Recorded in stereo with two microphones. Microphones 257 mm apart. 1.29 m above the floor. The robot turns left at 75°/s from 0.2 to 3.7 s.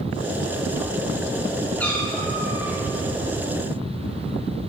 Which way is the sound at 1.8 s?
175° left.